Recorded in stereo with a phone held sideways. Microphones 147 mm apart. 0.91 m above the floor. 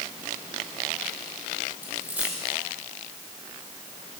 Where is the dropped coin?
10° right (ahead or behind), 7 m.